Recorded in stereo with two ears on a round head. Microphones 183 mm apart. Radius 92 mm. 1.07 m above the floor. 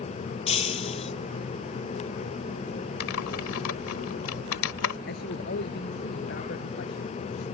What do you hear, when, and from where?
0.5 s breaking glass: 30° left (ahead or behind)
3.0 s typing on a keyboard: 75° left (ahead or behind)
5.1 s a man speaking: 50° left (ahead or behind)